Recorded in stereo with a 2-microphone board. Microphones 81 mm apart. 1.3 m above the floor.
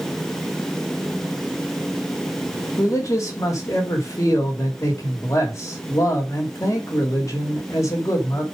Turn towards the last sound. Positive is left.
turn(degrees=40)  # may be behind; listen again after turning